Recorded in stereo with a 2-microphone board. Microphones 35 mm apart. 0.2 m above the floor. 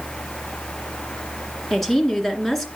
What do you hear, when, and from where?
1.7 s a woman speaking: 5° left (ahead or behind), 2 m